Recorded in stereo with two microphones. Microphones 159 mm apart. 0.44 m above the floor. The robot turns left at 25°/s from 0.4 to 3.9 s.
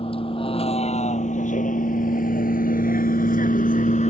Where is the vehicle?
35° left (ahead or behind); by 4.1 s 45° left (ahead or behind).